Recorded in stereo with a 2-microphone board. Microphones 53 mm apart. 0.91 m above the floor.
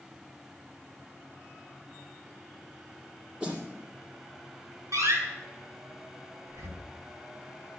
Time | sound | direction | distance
3.4 | a snare drum | 15° right (ahead or behind) | 6.5 m
4.9 | a door slam | 75° right (ahead or behind) | 8 m
6.5 | breathing | 80° right | 2.5 m